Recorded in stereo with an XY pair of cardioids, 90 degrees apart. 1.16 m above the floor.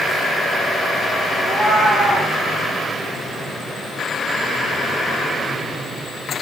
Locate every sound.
1.4 s a cat meowing: 65° right, 8 m